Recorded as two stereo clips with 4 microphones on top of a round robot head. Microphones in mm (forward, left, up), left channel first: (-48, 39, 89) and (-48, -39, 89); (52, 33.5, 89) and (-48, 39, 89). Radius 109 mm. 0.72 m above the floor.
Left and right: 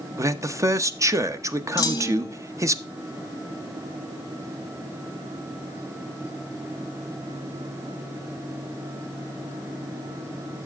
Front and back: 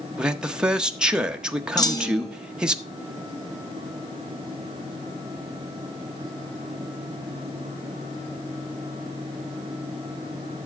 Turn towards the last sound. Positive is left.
turn(degrees=45)